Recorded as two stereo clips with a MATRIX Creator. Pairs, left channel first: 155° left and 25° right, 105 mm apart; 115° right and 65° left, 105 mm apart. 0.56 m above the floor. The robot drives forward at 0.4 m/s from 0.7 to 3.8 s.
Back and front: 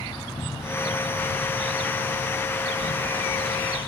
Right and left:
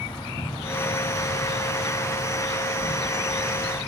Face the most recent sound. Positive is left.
turn(degrees=-165)